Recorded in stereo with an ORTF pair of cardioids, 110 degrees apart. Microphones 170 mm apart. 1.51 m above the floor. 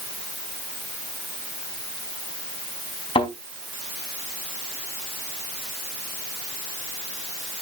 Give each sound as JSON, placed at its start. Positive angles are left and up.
{"t": 3.1, "sound": "a thud", "azimuth_deg": 35, "distance_m": 4.0}